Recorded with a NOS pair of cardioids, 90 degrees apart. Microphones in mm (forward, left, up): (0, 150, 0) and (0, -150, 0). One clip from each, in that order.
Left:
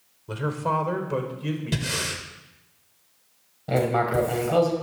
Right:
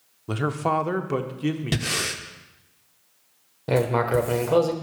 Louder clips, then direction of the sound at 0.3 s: Right 2 dB; 30° right.